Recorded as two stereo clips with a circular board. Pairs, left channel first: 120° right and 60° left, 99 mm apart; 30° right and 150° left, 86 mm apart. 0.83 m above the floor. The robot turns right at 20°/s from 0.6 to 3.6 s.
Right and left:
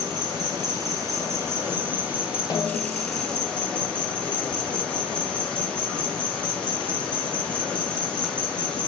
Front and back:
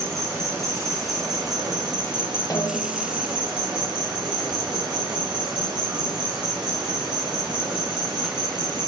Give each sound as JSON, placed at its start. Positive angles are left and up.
{"t": 0.0, "sound": "an insect", "azimuth_deg": 100, "distance_m": 2.5}
{"t": 2.5, "sound": "a snare drum", "azimuth_deg": -80, "distance_m": 1.4}